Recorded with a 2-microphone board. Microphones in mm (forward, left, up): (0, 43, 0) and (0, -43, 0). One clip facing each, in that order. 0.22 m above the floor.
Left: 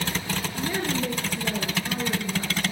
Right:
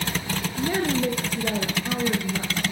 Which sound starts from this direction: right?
A woman speaking, at 0.6 s.